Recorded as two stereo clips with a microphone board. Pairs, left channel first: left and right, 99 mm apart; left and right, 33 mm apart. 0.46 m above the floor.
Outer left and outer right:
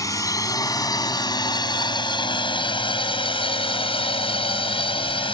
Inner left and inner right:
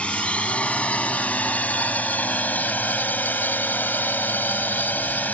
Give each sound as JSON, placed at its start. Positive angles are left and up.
{"t": 0.0, "sound": "a drone", "side_deg": 35}